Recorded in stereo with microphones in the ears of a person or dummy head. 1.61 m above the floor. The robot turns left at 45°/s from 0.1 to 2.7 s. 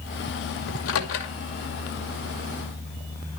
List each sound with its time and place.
0.7 s a microwave: 75° left (ahead or behind), 2.5 m; by 1.3 s 60° left (ahead or behind), 2.5 m